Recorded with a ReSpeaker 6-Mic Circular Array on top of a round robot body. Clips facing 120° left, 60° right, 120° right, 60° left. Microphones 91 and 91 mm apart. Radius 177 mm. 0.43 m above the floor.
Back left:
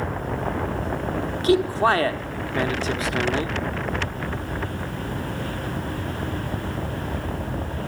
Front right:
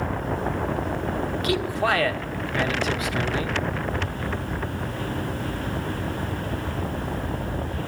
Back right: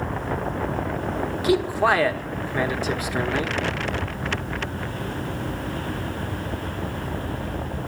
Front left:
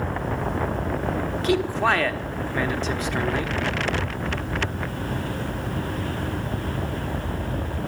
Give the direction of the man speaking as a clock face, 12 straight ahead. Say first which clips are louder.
Back left 6 dB, back right 2 dB; 7 o'clock.